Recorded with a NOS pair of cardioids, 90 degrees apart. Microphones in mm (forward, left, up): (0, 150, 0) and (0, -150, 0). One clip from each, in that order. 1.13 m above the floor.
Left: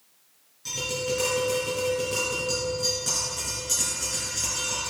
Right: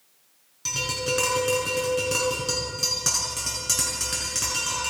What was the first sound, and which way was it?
Tapping, 65° right.